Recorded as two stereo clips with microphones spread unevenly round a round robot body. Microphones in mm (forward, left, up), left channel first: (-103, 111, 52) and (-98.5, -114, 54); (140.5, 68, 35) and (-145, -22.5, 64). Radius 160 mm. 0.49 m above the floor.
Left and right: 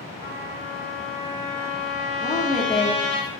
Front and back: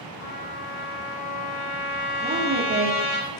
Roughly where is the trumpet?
Ahead right.